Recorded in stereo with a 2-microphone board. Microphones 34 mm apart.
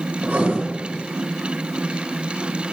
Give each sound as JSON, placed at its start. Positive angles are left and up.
{"t": 0.2, "sound": "writing", "side_deg": -50, "distance_m": 1.9}